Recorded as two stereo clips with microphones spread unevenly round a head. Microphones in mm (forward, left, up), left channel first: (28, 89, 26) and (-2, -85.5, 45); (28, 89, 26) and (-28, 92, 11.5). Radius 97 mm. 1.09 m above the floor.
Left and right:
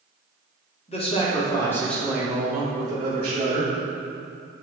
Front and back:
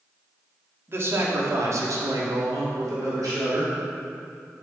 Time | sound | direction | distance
0.9 | a man speaking | 135° left | 2 m